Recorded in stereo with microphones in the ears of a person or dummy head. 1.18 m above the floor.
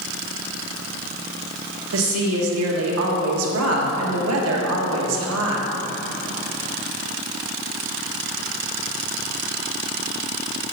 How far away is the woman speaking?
About 1.5 m.